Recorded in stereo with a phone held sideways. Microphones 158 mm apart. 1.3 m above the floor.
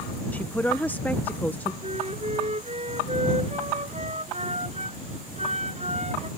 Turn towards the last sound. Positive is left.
turn(degrees=-45)  # may be behind; listen again after turning